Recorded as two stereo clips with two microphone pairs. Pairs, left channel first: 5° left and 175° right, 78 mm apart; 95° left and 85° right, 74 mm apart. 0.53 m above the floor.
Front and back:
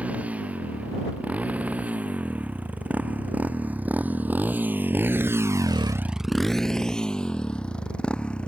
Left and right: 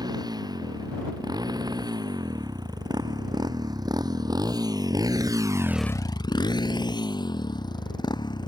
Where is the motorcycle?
105° right; by 8.5 s 80° left.